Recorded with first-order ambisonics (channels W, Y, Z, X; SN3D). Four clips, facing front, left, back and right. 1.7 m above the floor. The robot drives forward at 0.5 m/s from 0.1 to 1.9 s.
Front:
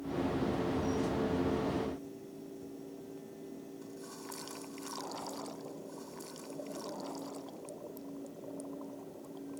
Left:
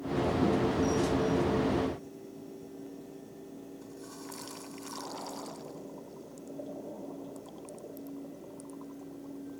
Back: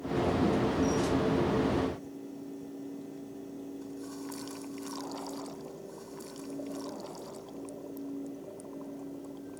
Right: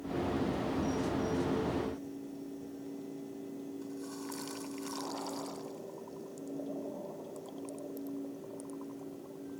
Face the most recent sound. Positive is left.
No sound to turn to.